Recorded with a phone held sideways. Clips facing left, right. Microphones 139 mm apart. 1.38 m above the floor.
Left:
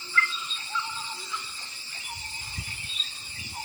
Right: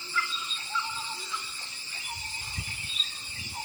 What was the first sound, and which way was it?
A chime, 10° right (ahead or behind).